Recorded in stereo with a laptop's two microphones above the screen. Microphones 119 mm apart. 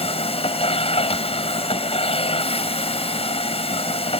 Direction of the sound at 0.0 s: 55° left (ahead or behind).